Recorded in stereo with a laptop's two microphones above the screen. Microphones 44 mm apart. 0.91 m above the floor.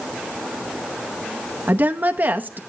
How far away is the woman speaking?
About 0.7 m.